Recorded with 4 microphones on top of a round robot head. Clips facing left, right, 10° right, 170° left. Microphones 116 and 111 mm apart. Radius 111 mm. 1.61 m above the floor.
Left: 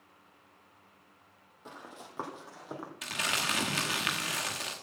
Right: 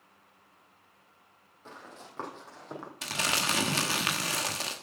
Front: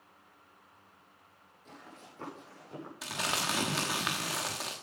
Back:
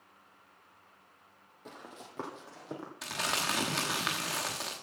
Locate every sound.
1.6 s running footsteps: 160° left, 2.5 m; by 2.9 s 170° left, 3 m
3.0 s crumpling: 95° right, 1.1 m